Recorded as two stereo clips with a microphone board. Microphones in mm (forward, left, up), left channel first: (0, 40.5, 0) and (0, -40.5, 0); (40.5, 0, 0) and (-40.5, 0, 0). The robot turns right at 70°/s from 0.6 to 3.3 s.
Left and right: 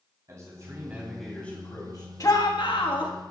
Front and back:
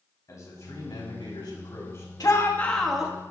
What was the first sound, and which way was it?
A man speaking, 45° right.